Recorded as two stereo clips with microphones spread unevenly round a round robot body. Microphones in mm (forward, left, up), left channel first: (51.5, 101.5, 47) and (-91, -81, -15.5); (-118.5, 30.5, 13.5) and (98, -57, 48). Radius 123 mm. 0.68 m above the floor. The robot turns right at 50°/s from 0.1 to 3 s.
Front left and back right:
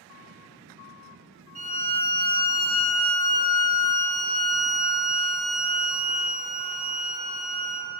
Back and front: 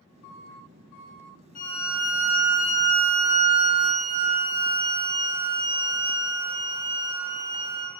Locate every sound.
1.6 s a violin: 165° right, 1.2 m; by 7.9 s 90° right, 1.2 m